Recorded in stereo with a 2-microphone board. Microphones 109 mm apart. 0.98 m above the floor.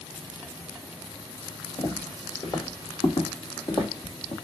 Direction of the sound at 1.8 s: 35° left (ahead or behind).